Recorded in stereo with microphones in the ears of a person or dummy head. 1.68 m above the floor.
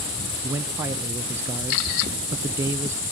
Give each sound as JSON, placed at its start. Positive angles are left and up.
{"t": 0.4, "sound": "a man speaking", "side_deg": -20, "distance_m": 0.5}